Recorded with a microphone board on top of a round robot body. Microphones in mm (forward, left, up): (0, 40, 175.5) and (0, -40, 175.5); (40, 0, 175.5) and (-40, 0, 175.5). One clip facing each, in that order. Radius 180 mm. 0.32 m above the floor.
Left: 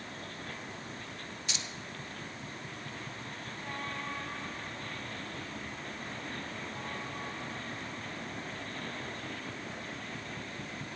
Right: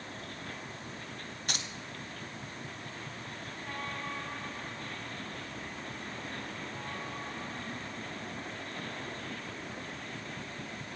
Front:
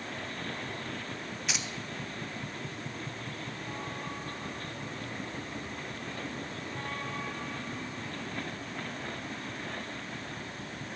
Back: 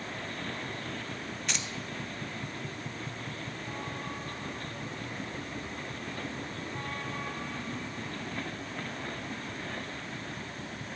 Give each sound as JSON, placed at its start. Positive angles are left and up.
{"t": 1.5, "sound": "keys jangling", "azimuth_deg": -85, "distance_m": 1.2}